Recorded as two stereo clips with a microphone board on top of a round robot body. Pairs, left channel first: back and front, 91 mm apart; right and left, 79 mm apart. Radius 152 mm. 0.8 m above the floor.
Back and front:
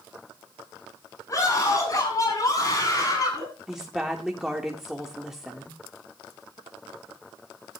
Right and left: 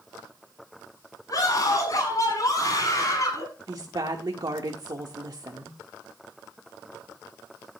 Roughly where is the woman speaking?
Left.